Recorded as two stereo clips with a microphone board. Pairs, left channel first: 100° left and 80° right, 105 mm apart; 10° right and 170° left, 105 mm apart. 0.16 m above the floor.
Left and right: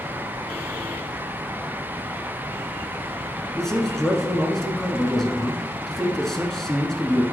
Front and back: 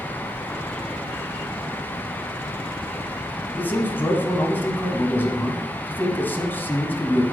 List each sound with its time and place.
3.6 s a man speaking: 20° left, 1.0 m